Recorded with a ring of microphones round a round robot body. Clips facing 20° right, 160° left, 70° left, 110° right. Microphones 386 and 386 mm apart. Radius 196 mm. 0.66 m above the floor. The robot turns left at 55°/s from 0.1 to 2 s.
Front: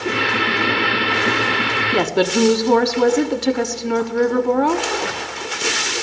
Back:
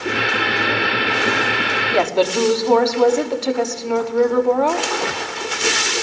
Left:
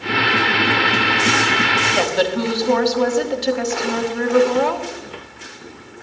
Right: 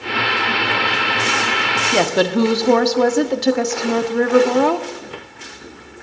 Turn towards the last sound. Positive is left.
turn(degrees=-85)